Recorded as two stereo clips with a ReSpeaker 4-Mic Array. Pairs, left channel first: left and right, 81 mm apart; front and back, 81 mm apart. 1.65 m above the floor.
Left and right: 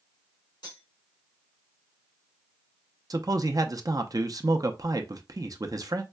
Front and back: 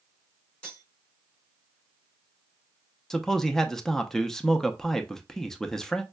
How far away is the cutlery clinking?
About 3.5 m.